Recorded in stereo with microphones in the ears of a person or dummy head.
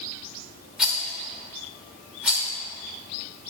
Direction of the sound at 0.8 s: 10° right (ahead or behind).